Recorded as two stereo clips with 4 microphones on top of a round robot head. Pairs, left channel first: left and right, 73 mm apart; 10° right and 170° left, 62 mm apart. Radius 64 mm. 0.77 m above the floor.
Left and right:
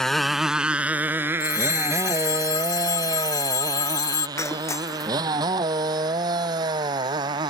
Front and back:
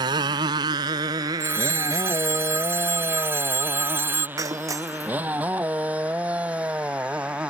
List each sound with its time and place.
0.0 s a motorcycle: 175° left; by 7.5 s 115° right
1.4 s a phone ringing: 120° left
4.4 s breaking glass: 140° left